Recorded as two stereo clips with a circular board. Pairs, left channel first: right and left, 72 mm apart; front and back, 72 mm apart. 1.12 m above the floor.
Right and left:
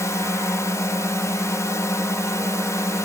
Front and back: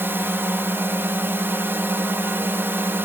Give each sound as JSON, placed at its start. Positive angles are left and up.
{"t": 0.0, "sound": "a drone", "azimuth_deg": -125}